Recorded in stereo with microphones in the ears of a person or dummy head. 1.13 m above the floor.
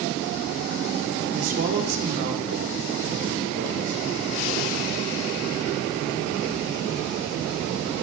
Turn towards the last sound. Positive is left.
turn(degrees=-55)  # may be behind; listen again after turning